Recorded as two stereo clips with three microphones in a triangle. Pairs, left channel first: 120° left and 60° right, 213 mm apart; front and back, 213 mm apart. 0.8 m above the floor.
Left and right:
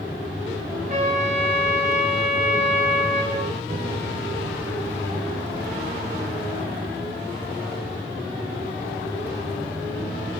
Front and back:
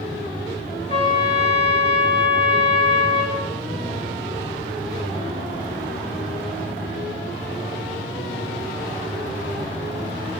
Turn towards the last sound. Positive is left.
turn(degrees=-115)